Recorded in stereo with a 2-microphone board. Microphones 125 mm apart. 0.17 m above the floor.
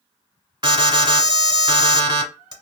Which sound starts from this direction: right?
An alarm, at 0.6 s.